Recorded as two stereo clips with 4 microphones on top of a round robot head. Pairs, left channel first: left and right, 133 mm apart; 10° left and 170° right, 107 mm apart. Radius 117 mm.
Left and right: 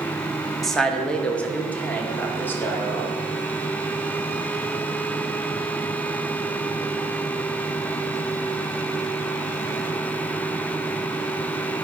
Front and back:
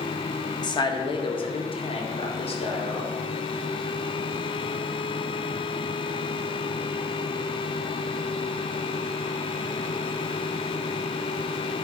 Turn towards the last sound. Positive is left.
turn(degrees=20)